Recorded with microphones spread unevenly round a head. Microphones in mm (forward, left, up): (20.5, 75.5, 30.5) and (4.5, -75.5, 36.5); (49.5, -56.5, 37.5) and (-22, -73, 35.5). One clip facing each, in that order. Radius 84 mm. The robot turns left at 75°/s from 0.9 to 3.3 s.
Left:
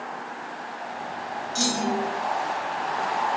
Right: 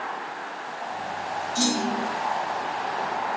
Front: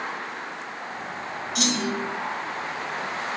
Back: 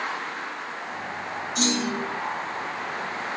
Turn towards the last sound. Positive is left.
turn(degrees=-110)